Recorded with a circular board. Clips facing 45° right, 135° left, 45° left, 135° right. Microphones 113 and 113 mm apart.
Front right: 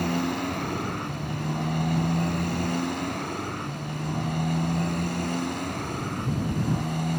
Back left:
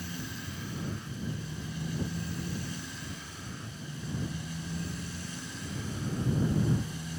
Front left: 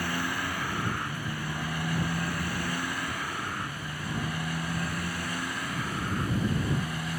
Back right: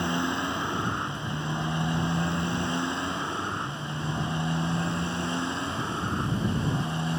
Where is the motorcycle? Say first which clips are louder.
Front right 15 dB, back right 4 dB; 65° right; by 7.2 s 70° right.